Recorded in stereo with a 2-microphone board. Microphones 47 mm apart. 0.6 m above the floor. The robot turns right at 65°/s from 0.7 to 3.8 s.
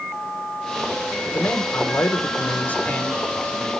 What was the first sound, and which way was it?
A man speaking, 45° left.